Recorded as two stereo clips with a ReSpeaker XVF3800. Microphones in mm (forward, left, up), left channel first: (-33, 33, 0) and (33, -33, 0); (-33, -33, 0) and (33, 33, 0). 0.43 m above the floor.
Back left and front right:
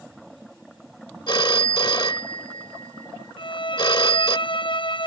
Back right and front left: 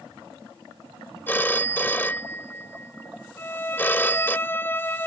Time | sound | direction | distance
1.3 | a phone ringing | 160° left | ?
3.4 | a violin | 160° left | ?